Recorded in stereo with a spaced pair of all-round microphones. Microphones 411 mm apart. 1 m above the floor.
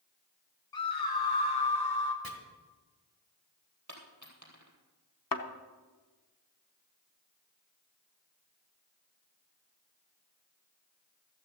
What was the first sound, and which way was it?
A scream, 55° left (ahead or behind).